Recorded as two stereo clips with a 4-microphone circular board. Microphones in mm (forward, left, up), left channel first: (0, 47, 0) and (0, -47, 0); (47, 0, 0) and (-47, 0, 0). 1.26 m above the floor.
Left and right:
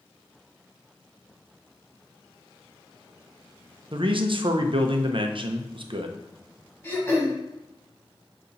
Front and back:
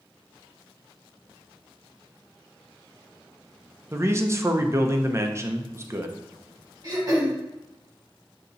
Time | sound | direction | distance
3.9 | a man speaking | 120° right | 0.6 m
6.8 | throat clearing | 145° left | 1.6 m